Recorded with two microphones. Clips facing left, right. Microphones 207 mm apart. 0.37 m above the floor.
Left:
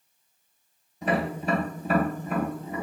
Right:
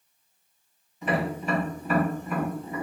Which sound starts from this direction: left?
Tapping, at 1.0 s.